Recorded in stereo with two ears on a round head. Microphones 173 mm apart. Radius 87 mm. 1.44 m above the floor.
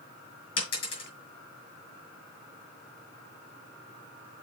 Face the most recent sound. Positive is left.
turn(degrees=30)  # may be behind; listen again after turning